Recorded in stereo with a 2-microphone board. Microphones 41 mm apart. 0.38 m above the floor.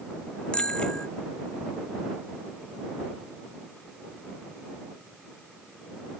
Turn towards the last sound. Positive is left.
turn(degrees=20)  # may be behind; listen again after turning